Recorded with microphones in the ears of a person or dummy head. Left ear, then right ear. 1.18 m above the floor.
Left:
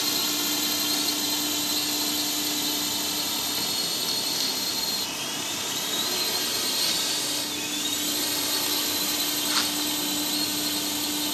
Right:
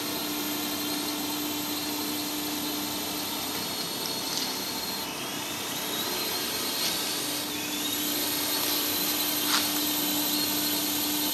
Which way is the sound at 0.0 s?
25° left (ahead or behind).